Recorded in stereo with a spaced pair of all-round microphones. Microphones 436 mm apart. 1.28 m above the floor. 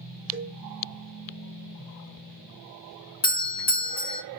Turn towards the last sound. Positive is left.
turn(degrees=65)  # may be behind; listen again after turning